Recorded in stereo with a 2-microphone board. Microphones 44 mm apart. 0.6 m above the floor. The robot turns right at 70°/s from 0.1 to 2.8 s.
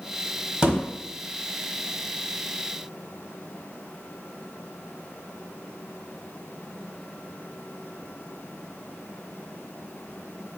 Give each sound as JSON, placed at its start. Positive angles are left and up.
{"t": 0.6, "sound": "a thud", "side_deg": -20, "distance_m": 1.2}